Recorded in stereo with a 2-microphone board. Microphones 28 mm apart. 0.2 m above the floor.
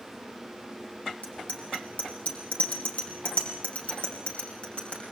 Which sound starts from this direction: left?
A bicycle bell, at 1.2 s.